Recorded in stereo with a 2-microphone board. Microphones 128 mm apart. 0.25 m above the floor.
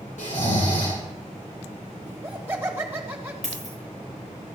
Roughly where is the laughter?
Centre.